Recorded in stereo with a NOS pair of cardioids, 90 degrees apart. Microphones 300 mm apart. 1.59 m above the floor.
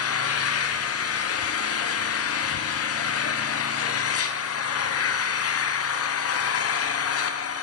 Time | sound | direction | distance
0.0 | an engine running | 50° left | 0.9 m